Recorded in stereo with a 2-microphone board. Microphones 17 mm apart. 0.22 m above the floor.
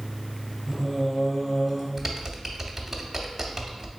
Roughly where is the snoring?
I don't hear snoring.